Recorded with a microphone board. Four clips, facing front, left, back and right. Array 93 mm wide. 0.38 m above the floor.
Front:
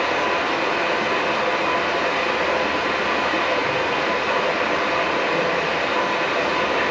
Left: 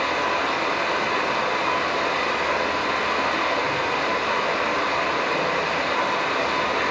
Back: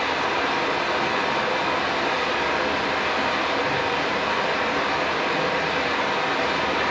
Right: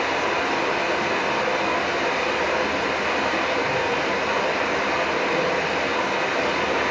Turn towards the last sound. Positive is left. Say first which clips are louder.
# even, front 2 dB
turn(degrees=-25)